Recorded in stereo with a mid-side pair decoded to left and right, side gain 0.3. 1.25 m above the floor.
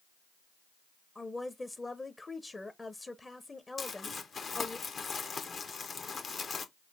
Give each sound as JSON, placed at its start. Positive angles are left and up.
{"t": 1.1, "sound": "a woman speaking", "azimuth_deg": 30, "distance_m": 0.7}
{"t": 3.8, "sound": "crumpling", "azimuth_deg": 65, "distance_m": 1.0}